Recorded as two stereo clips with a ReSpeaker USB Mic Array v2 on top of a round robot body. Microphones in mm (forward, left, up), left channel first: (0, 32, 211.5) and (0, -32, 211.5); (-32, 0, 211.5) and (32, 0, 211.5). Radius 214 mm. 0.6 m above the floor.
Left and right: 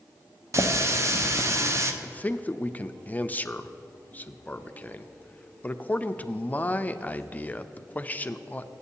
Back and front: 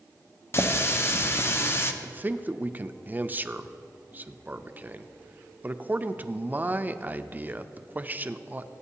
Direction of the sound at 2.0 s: 40° left.